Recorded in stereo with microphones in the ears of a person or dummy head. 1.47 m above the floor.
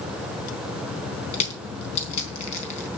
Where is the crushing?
40° left (ahead or behind), 4 m.